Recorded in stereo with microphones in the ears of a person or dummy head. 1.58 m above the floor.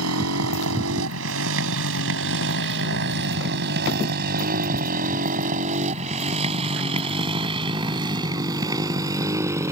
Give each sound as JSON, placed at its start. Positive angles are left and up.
{"t": 0.0, "sound": "a motorcycle", "side_deg": -80}